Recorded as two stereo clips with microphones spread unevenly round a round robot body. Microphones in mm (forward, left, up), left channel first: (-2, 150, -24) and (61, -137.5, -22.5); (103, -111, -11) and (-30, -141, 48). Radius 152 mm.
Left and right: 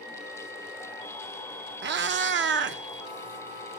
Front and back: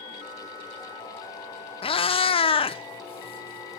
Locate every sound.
1.8 s a cat meowing: 25° right, 0.7 m